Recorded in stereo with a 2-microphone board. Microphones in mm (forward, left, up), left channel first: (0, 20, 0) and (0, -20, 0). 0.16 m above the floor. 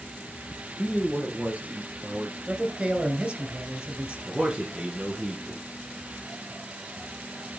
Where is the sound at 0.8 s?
15° right (ahead or behind), 2.5 m; by 2.4 s 55° right (ahead or behind), 3 m.